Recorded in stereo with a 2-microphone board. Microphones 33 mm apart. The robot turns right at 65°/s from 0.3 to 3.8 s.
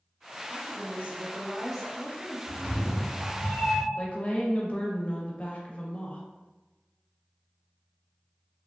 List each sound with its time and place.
0.5 s a woman speaking: 75° right, 0.6 m; by 2.4 s 45° left, 0.6 m
2.5 s a cat meowing: straight ahead, 0.7 m; by 3.9 s 85° left, 0.7 m
4.0 s a woman speaking: 40° left (ahead or behind), 0.7 m